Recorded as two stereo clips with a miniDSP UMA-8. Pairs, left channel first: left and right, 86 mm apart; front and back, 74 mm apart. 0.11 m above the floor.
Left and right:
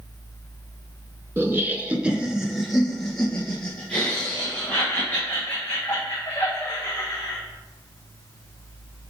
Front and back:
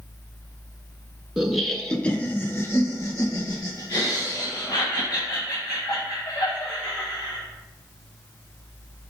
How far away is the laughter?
About 1.2 m.